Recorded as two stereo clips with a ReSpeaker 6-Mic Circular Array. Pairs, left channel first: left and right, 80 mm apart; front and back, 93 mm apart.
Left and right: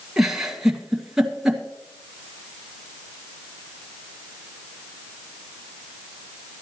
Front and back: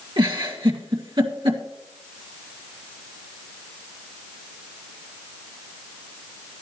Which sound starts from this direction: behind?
A giggle, at 0.2 s.